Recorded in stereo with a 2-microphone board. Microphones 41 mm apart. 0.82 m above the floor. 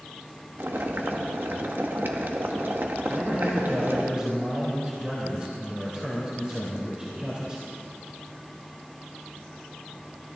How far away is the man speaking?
About 3 m.